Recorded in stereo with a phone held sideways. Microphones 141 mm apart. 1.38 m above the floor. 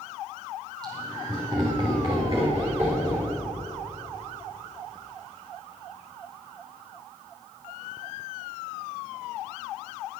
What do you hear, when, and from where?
0.8 s laughter: 25° right (ahead or behind), 5.5 m; by 3.3 s 20° right (ahead or behind), 3.5 m